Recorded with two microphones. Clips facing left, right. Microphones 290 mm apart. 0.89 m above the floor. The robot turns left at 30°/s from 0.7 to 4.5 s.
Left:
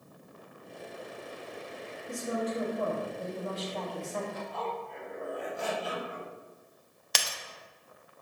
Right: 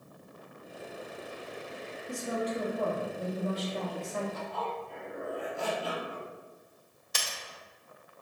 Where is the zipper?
70° right (ahead or behind), 1.5 m; by 6.3 s 65° right (ahead or behind), 1.5 m.